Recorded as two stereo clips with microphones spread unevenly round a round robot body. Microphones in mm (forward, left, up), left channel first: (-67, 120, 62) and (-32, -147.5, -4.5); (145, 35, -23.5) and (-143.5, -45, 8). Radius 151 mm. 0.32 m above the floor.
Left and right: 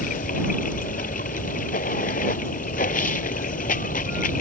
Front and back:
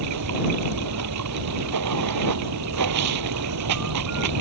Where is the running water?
160° left.